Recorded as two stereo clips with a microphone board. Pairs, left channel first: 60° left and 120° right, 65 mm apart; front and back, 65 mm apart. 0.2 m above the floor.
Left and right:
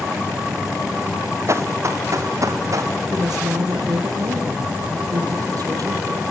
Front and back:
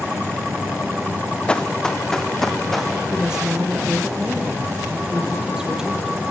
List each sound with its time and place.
1.5 s running footsteps: 75° right, 2 m; by 2.9 s 85° right, 4 m
3.1 s a woman speaking: 100° right, 6.5 m